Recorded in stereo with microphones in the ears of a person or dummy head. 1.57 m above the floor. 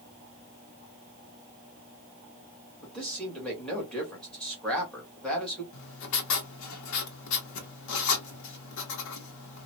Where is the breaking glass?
I don't hear breaking glass.